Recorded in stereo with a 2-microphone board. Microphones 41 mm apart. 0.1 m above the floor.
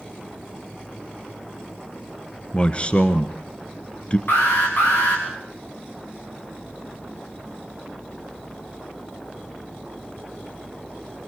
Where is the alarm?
55° left (ahead or behind), 7 m.